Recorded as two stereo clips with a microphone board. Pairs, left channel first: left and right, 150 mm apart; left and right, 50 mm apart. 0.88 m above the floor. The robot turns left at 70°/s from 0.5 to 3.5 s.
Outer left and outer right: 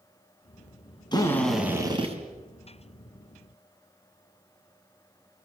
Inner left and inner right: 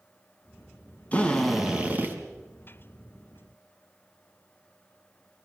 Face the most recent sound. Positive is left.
turn(degrees=-140)